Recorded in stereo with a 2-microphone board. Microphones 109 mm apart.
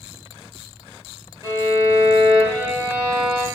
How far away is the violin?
About 1.8 m.